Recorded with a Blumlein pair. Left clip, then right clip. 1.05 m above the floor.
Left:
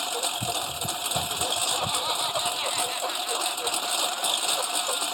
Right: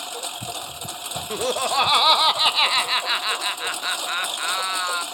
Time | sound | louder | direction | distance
0.0 | a lawn mower | left 3 dB | 10° left | ?
1.3 | laughter | right 9 dB | 35° right | ?